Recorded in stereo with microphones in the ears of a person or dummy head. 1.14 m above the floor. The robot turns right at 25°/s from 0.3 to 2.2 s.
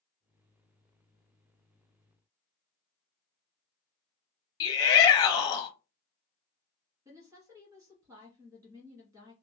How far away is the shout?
About 0.7 m.